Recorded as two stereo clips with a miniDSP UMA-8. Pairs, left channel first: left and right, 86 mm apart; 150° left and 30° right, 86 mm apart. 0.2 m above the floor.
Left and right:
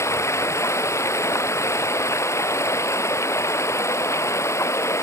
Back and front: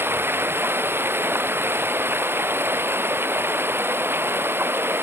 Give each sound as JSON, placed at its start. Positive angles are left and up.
{"t": 0.0, "sound": "running water", "azimuth_deg": 35}